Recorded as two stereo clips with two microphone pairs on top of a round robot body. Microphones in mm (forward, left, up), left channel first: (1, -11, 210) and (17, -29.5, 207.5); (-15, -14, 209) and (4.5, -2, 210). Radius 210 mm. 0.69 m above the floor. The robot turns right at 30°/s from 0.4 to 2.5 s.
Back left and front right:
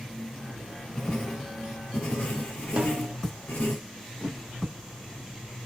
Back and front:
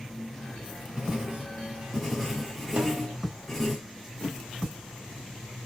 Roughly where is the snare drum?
Ahead.